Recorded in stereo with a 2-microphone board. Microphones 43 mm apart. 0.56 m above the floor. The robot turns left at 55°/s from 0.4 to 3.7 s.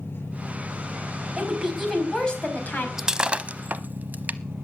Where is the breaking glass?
10° right (ahead or behind), 0.7 m; by 4.4 s 45° right (ahead or behind), 0.7 m.